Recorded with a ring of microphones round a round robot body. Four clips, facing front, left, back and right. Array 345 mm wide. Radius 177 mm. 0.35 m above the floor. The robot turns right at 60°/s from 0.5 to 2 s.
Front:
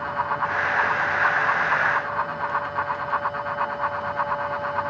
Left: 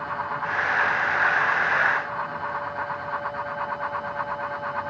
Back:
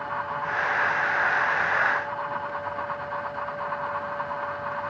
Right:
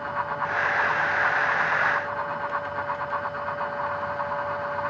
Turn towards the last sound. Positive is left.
No sound to turn to.